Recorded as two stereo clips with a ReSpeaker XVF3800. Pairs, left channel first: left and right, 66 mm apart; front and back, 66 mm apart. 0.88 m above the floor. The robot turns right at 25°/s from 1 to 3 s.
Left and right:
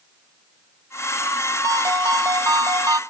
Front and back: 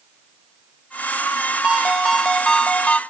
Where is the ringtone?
105° right, 0.5 m; by 3.0 s 70° right, 0.5 m.